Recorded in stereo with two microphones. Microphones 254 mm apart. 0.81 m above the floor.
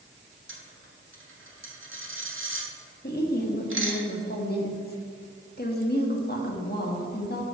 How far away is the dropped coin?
About 1.4 m.